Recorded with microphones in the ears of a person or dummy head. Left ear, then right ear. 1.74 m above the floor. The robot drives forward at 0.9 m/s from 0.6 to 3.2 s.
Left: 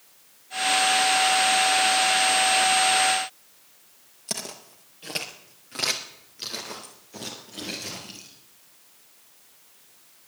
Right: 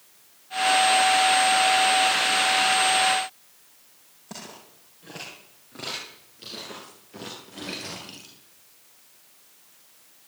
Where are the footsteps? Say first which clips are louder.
Left 7 dB; 50° left (ahead or behind), 2.5 m; by 8.3 s 15° right (ahead or behind), 2 m.